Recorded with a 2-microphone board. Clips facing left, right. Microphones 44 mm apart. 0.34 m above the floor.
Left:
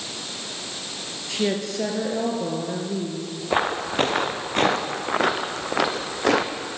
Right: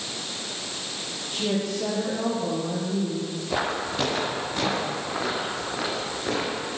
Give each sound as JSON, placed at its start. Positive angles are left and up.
{"t": 1.3, "sound": "a woman speaking", "side_deg": 75, "distance_m": 6.5}
{"t": 3.5, "sound": "footsteps", "side_deg": 30, "distance_m": 4.0}